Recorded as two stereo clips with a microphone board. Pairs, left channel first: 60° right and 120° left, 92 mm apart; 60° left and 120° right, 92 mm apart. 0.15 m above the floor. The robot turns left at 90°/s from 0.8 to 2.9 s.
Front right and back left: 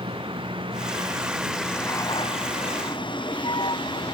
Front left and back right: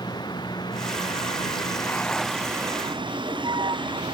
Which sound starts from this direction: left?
A vehicle, at 0.0 s.